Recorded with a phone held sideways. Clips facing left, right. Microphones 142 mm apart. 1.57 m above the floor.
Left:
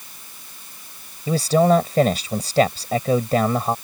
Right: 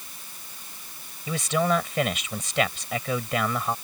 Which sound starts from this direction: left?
A man speaking, at 1.3 s.